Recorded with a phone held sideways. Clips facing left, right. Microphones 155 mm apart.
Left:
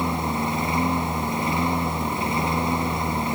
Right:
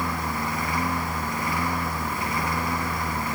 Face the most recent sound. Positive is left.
turn(degrees=25)  # may be behind; listen again after turning